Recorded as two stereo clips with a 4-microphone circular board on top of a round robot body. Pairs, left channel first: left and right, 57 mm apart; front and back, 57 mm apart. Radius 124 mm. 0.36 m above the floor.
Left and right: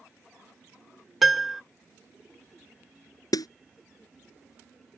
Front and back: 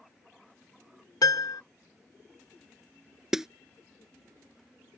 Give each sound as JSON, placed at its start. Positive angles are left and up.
{"t": 1.2, "sound": "a piano", "azimuth_deg": 0}
{"t": 3.3, "sound": "a snare drum", "azimuth_deg": 95}